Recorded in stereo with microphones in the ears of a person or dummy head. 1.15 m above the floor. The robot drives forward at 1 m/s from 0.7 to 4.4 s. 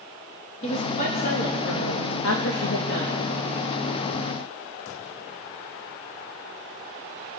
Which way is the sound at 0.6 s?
40° left (ahead or behind).